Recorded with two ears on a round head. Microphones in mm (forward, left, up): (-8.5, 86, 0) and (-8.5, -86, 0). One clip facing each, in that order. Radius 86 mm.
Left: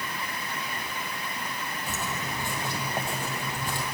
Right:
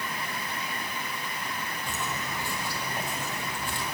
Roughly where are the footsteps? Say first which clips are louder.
Left 1 dB; centre.